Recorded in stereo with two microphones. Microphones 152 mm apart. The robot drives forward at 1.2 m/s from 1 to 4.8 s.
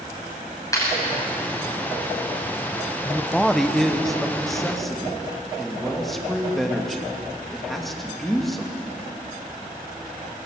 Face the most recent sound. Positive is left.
turn(degrees=0)  # may be behind; listen again after turning